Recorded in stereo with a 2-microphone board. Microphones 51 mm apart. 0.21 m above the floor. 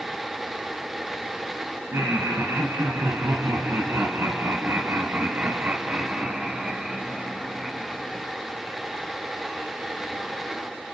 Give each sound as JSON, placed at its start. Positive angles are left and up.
{"t": 1.9, "sound": "laughter", "side_deg": -65, "distance_m": 3.0}